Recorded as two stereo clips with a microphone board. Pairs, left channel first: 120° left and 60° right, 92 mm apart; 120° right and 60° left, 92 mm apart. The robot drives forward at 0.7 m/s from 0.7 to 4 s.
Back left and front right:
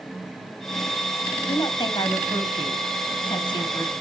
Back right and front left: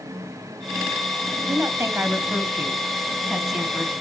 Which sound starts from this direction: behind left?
A woman speaking, at 1.5 s.